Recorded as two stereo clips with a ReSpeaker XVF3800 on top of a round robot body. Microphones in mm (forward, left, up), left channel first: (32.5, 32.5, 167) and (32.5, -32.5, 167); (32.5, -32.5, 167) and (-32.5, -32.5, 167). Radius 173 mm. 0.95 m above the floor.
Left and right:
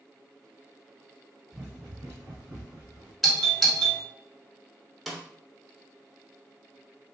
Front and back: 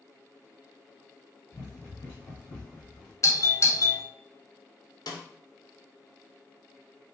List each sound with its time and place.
1.5 s running footsteps: 30° right, 1.3 m; by 3.1 s 85° right, 1.4 m
3.2 s a doorbell: straight ahead, 1.2 m
5.1 s a snare drum: straight ahead, 0.7 m